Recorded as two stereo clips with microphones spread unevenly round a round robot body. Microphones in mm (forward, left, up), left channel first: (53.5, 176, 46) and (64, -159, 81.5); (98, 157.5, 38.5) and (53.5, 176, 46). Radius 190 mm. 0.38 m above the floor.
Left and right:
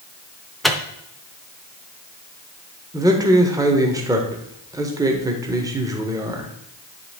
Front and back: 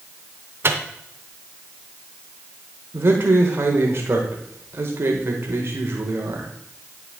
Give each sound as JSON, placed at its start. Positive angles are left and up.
{"t": 0.6, "sound": "a microwave", "azimuth_deg": 175, "distance_m": 0.7}
{"t": 2.9, "sound": "a man speaking", "azimuth_deg": -170, "distance_m": 1.2}